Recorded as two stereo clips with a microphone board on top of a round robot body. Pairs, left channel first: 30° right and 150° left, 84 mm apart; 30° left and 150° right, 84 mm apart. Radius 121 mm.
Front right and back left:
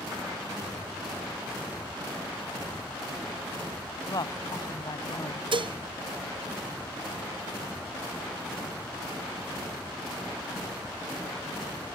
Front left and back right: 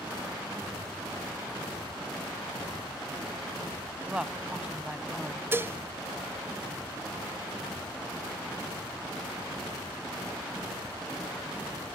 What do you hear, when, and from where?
4.1 s a woman speaking: 70° right
5.5 s dishes clattering: 145° left